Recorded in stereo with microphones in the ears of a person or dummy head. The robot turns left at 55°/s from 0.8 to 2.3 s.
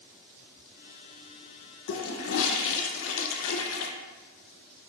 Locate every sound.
1.9 s a toilet flushing: 75° left (ahead or behind), 0.8 m; by 3.9 s 70° left (ahead or behind), 0.8 m